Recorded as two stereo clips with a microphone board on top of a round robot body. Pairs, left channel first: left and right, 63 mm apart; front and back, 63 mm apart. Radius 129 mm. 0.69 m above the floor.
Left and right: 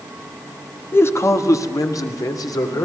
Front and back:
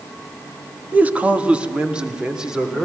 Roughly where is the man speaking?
Behind left.